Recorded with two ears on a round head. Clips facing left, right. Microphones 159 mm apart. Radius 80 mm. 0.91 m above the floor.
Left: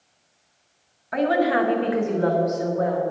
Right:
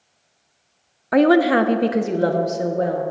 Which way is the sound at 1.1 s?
65° right (ahead or behind).